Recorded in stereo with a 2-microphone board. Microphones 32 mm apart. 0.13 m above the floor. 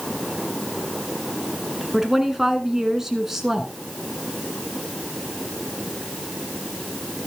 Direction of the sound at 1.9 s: 15° right (ahead or behind).